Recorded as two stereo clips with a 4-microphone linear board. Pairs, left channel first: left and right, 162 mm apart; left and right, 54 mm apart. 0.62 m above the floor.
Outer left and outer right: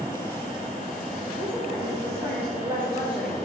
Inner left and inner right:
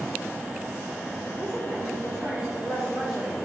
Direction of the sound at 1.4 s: 30° right (ahead or behind).